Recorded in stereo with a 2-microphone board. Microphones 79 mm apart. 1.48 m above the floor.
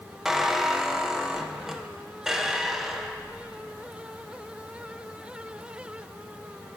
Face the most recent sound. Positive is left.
turn(degrees=-5)  # may be behind; listen again after turning